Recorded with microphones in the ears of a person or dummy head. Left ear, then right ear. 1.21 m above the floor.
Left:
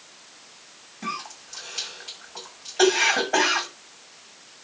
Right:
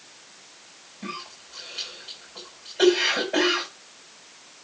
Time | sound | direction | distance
1.0 | a cough | 55° left (ahead or behind) | 6.5 m